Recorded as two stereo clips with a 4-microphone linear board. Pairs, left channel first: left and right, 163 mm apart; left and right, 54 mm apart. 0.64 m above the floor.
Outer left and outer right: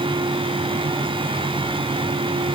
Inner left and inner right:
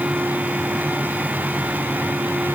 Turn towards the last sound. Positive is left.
No sound to turn to.